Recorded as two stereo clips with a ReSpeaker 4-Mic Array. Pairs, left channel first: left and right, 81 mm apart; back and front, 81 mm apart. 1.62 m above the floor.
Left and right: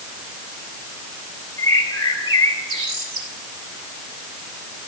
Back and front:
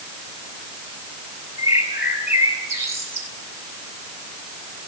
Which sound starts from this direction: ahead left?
A bird, at 1.6 s.